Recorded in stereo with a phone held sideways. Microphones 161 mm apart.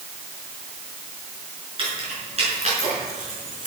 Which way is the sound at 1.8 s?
35° right (ahead or behind).